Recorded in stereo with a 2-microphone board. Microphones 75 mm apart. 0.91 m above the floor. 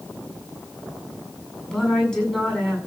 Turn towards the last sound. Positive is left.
turn(degrees=5)  # may be behind; listen again after turning